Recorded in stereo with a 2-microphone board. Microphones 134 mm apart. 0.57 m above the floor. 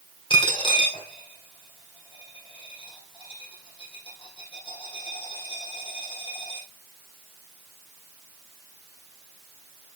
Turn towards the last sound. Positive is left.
turn(degrees=40)  # may be behind; listen again after turning